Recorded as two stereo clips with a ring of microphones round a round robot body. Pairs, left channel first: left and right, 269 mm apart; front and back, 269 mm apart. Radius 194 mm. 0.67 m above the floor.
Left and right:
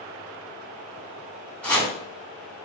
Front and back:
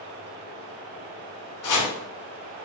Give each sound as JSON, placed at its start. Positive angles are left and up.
{"t": 1.6, "sound": "chopping", "azimuth_deg": 5, "distance_m": 2.0}